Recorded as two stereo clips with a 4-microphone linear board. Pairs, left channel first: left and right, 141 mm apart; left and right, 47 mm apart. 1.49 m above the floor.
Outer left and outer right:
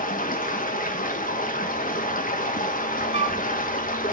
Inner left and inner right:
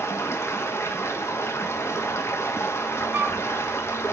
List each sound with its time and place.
0.0 s running water: 75° left (ahead or behind), 1.3 m
3.1 s a flute: 50° right (ahead or behind), 0.7 m